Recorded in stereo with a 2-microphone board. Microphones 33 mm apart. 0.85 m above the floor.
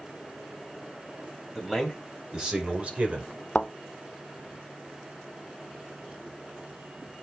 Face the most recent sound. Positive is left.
turn(degrees=30)  # may be behind; listen again after turning